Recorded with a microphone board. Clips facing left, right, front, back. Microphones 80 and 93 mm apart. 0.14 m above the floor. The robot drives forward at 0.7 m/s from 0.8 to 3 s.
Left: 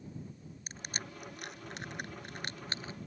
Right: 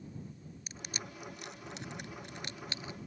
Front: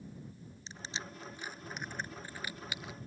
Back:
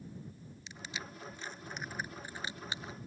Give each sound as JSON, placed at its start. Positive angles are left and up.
{"t": 0.7, "sound": "crushing", "azimuth_deg": 50}